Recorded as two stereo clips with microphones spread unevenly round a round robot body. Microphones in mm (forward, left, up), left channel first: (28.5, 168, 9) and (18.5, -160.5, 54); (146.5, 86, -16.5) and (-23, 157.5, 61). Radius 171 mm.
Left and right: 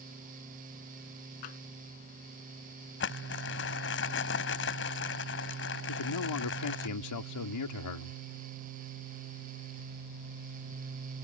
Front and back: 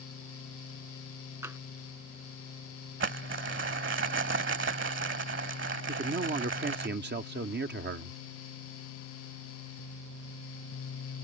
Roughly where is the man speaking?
Behind left.